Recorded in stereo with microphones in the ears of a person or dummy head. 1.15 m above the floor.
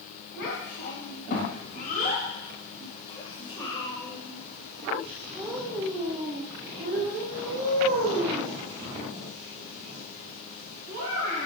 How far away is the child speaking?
About 3.5 m.